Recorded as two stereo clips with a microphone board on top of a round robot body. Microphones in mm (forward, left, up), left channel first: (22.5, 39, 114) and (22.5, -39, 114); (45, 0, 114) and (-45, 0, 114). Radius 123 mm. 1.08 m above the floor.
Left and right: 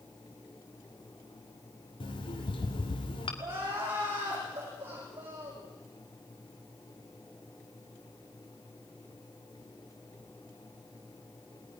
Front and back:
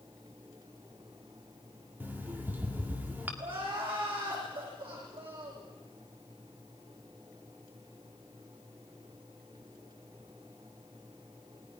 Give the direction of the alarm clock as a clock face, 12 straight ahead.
8 o'clock.